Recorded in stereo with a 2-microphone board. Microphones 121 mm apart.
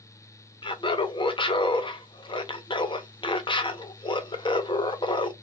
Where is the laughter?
40° left (ahead or behind), 0.7 m.